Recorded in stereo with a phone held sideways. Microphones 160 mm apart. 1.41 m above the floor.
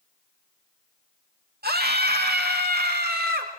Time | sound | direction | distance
1.6 | a scream | 80° right | 2 m